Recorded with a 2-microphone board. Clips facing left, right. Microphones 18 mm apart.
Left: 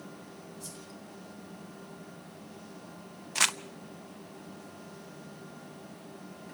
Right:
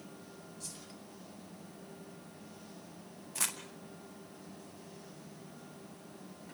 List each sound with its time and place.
0.6 s a whoosh: 30° right (ahead or behind), 9 m
3.4 s crumpling: 50° left (ahead or behind), 0.8 m